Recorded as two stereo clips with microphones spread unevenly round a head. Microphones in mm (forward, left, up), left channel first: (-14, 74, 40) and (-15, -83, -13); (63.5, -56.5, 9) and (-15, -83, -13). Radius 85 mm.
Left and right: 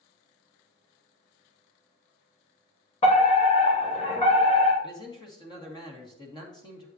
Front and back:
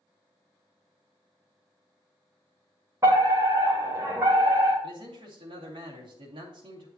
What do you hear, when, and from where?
3.0 s a fire alarm: 150° left, 2.5 m
4.8 s a man speaking: 155° left, 2.5 m